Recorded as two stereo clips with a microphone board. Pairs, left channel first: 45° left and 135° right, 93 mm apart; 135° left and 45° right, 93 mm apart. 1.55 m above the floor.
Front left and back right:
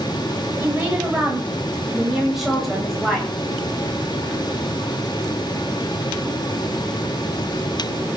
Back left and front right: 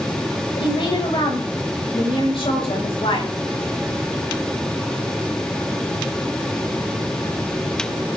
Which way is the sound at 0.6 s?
155° left.